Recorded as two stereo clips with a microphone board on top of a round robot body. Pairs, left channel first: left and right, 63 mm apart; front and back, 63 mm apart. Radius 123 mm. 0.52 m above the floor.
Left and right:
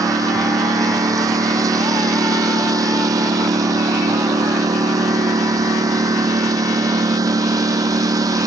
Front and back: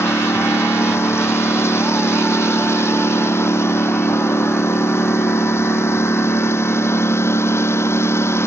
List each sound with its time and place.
0.0 s a lawn mower: 55° right